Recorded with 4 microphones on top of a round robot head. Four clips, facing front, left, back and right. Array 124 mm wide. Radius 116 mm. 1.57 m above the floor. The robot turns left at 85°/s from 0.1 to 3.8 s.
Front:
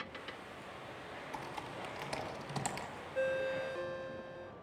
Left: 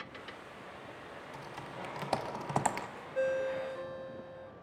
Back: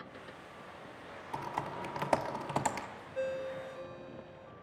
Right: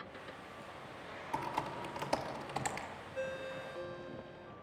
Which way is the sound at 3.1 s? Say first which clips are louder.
Left 10 dB, front 2 dB; 55° left.